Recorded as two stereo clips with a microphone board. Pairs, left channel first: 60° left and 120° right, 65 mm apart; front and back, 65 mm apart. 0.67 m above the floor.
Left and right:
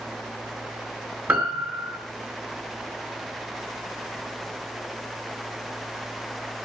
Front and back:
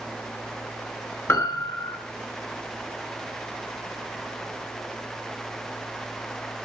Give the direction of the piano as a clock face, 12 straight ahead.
2 o'clock.